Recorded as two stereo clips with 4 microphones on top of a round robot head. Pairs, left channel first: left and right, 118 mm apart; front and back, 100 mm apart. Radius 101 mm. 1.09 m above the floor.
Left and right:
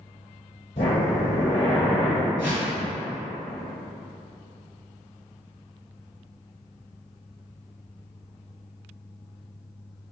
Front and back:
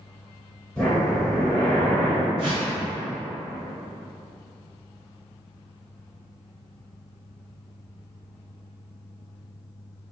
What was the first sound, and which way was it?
Breathing, 80° left.